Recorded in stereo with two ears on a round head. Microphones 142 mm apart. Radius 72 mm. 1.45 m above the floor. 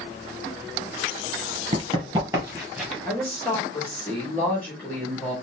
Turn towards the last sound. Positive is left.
turn(degrees=10)  # may be behind; listen again after turning